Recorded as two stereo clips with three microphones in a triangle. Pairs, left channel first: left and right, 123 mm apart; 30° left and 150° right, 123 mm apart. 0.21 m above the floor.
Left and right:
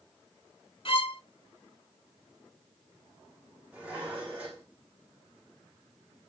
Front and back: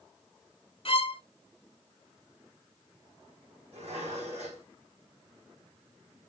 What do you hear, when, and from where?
0.8 s a violin: 55° left, 0.7 m
3.7 s dishes clattering: 170° right, 6.5 m